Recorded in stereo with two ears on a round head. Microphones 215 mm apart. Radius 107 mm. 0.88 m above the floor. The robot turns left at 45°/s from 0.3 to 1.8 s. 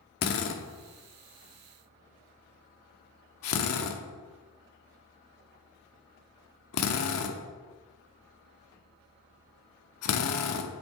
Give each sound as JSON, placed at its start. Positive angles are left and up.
{"t": 0.2, "sound": "a drill", "side_deg": 45, "distance_m": 0.9}